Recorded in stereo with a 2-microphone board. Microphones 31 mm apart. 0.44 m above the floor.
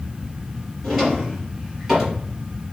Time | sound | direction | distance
0.8 | a drawer | 10° right (ahead or behind) | 3.5 m